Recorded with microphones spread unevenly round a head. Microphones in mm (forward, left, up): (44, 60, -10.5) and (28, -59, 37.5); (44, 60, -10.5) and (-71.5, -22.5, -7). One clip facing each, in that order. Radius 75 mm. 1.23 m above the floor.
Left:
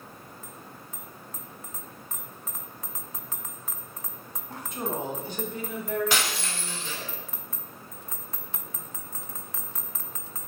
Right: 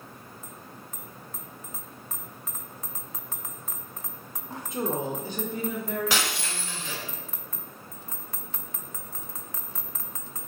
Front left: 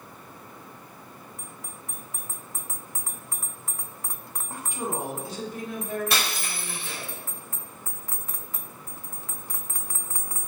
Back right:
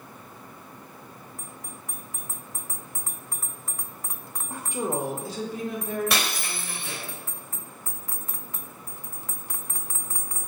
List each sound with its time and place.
4.5 s a woman speaking: 130° right, 1.3 m; by 7.1 s 95° right, 2.5 m
6.1 s breaking glass: 110° right, 3 m